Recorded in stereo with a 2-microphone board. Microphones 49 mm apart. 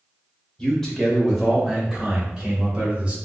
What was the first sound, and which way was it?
A man speaking, 15° left (ahead or behind).